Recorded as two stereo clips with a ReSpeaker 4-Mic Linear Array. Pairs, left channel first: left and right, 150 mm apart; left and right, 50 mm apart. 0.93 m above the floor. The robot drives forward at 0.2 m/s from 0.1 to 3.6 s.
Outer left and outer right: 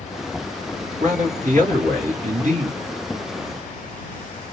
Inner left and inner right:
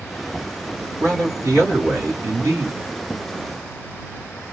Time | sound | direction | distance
1.0 | a man speaking | 65° right (ahead or behind) | 2.5 m